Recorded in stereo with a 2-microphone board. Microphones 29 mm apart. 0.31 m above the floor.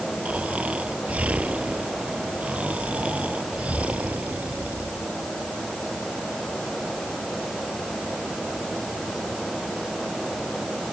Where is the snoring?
50° right (ahead or behind).